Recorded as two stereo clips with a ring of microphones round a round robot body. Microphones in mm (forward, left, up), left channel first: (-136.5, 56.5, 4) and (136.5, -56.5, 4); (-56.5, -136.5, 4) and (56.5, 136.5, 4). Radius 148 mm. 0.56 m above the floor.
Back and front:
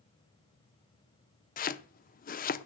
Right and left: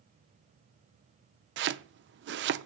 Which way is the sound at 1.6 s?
105° left.